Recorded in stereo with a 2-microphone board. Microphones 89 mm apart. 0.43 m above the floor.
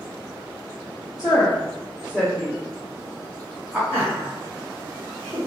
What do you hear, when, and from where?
1.2 s a woman speaking: 40° left (ahead or behind), 1.5 m; by 3.8 s 10° right (ahead or behind), 1.3 m
3.9 s laughter: 25° left (ahead or behind), 1.7 m